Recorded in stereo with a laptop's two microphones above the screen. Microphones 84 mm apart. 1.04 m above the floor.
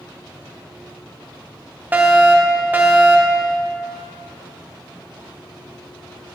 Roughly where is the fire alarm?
Right.